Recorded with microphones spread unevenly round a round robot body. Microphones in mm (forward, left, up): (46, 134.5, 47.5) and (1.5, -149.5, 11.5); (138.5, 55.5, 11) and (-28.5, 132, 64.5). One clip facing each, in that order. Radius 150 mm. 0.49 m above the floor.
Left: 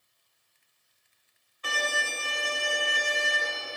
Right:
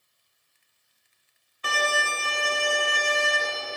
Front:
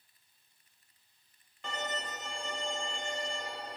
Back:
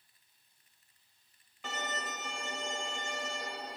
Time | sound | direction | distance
1.6 | a violin | 115° right | 1.3 m